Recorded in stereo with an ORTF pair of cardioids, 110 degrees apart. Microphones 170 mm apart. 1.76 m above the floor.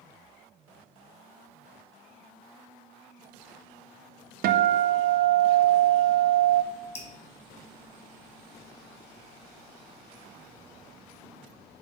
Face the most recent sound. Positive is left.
turn(degrees=35)